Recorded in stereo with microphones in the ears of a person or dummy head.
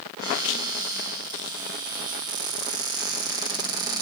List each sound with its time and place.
0.2 s a cupboard door: 15° right (ahead or behind), 2.0 m